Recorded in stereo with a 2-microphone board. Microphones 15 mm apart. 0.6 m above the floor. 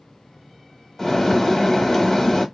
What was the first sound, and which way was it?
A bird, 20° left (ahead or behind).